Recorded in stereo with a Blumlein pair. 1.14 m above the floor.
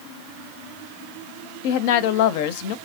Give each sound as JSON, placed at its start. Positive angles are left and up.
{"t": 1.6, "sound": "a woman speaking", "azimuth_deg": 50, "distance_m": 0.6}